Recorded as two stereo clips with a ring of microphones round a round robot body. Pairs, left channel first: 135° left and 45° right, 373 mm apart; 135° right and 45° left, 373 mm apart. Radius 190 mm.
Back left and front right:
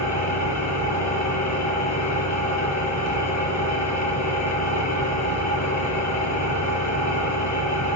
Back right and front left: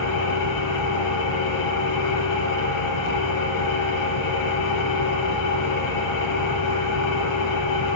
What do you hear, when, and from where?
0.0 s an engine running: 175° right, 6.5 m